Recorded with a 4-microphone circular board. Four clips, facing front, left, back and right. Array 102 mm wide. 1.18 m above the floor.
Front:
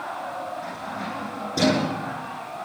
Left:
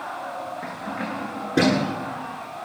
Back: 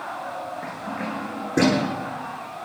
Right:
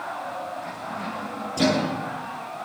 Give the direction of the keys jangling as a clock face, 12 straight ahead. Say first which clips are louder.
Left 2 dB, back 1 dB; 8 o'clock.